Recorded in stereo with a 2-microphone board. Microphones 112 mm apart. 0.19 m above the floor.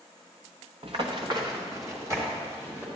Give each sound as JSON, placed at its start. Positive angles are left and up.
{"t": 0.8, "sound": "running footsteps", "side_deg": -55, "distance_m": 1.1}